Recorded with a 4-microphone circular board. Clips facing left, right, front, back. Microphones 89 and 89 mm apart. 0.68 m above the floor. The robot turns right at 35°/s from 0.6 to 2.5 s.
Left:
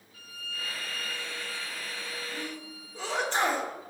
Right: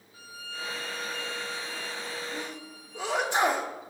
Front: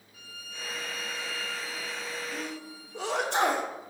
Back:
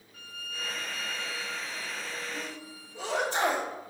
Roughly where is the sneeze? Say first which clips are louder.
Right 1 dB, front 2 dB; ahead.